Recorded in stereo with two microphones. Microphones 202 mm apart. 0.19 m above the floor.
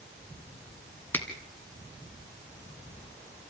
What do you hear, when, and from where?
1.1 s a finger snap: 10° left (ahead or behind), 2 m